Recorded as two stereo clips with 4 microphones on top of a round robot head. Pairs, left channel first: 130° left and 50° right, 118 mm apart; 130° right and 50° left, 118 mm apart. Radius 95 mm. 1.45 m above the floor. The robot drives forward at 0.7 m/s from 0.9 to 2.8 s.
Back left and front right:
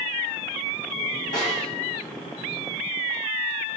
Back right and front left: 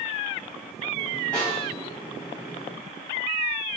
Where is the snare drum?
145° left, 4.5 m; by 1.7 s 150° left, 5 m.